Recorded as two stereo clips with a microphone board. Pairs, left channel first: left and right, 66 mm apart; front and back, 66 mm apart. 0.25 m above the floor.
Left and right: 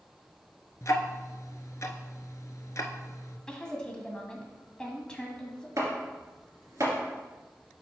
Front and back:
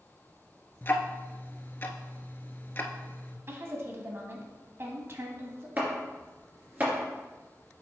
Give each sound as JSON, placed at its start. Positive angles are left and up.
{"t": 0.8, "sound": "ticking", "azimuth_deg": 55, "distance_m": 0.6}
{"t": 3.5, "sound": "a woman speaking", "azimuth_deg": 160, "distance_m": 1.4}
{"t": 5.8, "sound": "chopping", "azimuth_deg": -120, "distance_m": 2.5}